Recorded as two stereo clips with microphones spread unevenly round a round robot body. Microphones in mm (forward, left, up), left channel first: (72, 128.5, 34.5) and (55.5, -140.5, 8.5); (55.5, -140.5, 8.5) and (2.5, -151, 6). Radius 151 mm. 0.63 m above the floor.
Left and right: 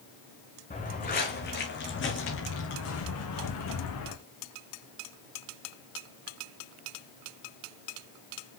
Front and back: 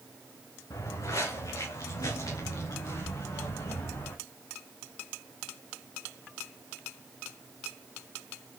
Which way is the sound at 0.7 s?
25° left.